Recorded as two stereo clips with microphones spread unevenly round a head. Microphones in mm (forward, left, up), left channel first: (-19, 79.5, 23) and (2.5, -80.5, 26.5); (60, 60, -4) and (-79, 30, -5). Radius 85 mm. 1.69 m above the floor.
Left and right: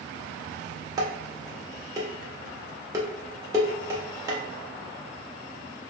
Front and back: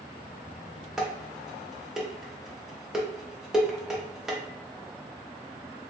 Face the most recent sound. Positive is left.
turn(degrees=-85)